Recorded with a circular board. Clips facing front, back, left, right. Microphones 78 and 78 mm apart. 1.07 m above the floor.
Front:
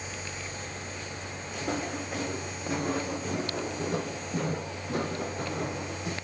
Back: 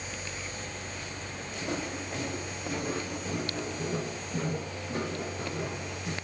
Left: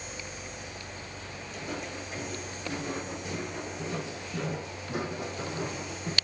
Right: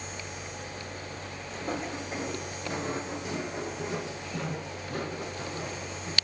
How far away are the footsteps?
About 3.5 m.